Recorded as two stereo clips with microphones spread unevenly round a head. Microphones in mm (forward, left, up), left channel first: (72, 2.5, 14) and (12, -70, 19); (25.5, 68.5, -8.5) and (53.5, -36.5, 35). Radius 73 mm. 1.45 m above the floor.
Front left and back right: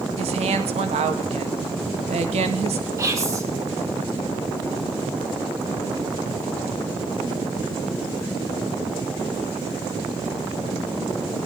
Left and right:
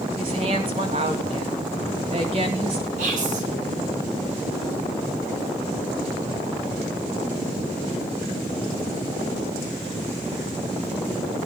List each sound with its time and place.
0.2 s a woman speaking: 130° right, 2 m
3.0 s whispering: 75° right, 5 m